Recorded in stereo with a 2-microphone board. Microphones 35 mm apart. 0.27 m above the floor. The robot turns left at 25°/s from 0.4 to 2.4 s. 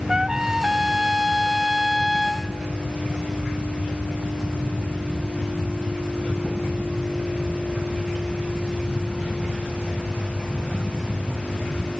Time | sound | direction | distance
0.1 | a trumpet | 140° right | 0.9 m